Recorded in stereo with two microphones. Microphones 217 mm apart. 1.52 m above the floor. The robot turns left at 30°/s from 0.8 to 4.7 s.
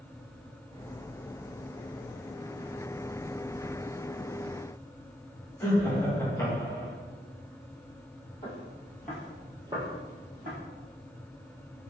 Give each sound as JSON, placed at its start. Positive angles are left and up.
{"t": 5.6, "sound": "laughter", "side_deg": 10, "distance_m": 1.5}
{"t": 8.4, "sound": "footsteps", "side_deg": 25, "distance_m": 1.9}